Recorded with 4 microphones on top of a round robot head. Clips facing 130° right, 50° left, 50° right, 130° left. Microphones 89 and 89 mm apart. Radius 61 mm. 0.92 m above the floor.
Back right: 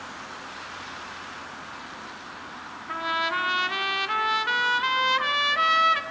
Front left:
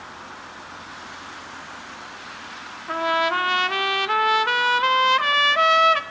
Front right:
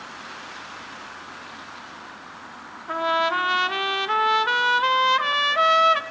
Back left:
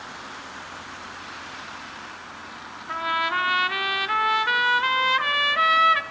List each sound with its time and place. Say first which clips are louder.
2.9 s a trumpet: front left 6 dB, front right 3 dB; 10° left, 0.6 m